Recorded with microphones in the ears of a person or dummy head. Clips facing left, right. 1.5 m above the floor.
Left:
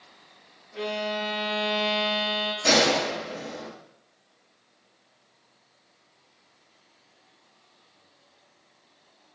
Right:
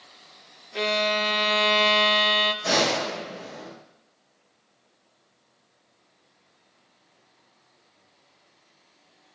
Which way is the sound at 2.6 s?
80° left.